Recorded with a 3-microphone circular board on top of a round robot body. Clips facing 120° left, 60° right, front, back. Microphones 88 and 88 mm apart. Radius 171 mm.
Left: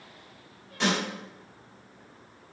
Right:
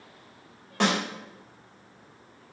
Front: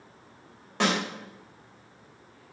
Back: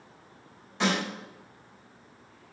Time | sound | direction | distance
0.8 | a snare drum | 30° right | 4.5 m